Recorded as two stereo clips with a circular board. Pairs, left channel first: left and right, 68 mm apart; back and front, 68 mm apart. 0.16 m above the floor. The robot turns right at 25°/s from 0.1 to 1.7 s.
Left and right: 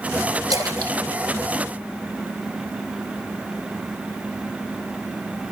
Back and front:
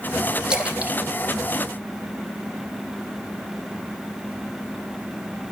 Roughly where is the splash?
Right.